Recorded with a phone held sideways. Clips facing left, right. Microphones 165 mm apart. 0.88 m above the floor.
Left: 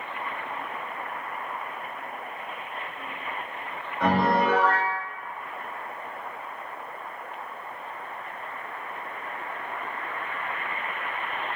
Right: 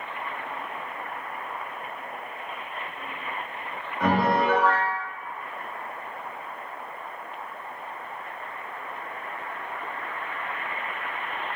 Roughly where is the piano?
Centre.